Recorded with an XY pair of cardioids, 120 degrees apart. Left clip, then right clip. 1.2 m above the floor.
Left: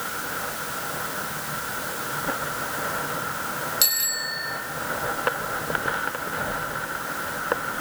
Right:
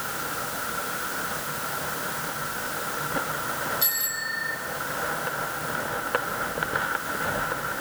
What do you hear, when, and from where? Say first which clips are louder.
3.8 s a bicycle bell: left 4 dB; 65° left, 10 m